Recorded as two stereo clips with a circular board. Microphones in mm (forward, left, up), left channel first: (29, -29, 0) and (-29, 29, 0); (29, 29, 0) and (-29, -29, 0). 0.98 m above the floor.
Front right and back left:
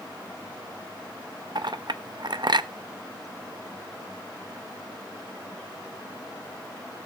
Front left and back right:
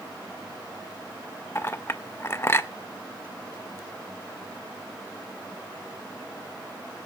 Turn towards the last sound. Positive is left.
turn(degrees=105)